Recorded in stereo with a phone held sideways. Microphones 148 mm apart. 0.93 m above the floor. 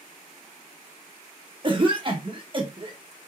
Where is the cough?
35° right (ahead or behind), 0.8 m.